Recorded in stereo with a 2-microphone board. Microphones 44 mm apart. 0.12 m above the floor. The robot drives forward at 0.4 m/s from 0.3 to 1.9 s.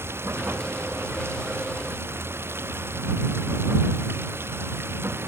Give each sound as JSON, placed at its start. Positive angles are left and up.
{"t": 0.0, "sound": "running water", "side_deg": -70}